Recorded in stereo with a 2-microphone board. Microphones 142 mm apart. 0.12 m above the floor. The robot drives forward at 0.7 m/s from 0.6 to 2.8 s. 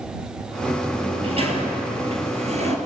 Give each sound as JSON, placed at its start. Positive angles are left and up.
{"t": 0.9, "sound": "a sliding door", "side_deg": -40, "distance_m": 3.5}